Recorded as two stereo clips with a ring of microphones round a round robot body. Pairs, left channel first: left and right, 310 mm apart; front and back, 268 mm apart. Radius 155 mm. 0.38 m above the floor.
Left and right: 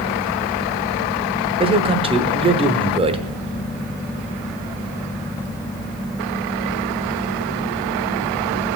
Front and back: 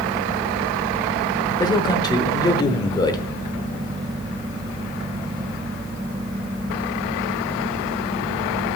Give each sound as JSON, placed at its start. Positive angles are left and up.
{"t": 1.6, "sound": "a man speaking", "azimuth_deg": -50, "distance_m": 0.8}